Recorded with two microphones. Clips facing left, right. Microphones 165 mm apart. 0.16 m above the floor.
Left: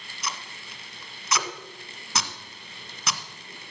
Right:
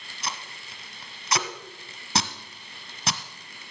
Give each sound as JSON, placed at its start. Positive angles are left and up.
{"t": 0.2, "sound": "tape being pulled", "side_deg": -30, "distance_m": 1.1}